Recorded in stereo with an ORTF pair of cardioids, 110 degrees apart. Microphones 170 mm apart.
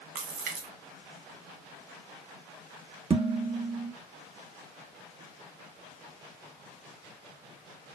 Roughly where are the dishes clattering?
Ahead right.